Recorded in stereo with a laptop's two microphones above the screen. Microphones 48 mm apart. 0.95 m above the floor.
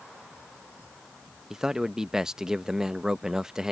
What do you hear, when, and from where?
1.5 s a man speaking: 10° right (ahead or behind)